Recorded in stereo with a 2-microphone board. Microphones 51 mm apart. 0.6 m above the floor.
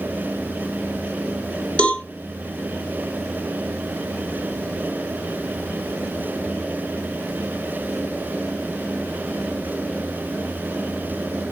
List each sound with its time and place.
1.8 s a cowbell: 25° left (ahead or behind), 1.5 m